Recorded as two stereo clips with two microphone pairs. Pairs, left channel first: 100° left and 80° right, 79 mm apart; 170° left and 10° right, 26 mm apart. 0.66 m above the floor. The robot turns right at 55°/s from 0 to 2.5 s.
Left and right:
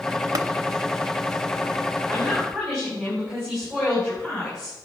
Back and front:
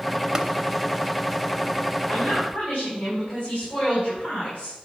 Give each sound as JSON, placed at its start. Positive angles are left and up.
{"t": 0.3, "sound": "tapping", "azimuth_deg": -65, "distance_m": 0.7}
{"t": 2.1, "sound": "a woman speaking", "azimuth_deg": 165, "distance_m": 4.5}